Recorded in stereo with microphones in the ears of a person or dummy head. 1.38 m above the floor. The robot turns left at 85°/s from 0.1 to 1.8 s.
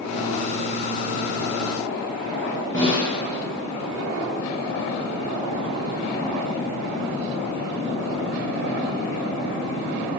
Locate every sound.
2.7 s a snare drum: 25° left (ahead or behind), 1.4 m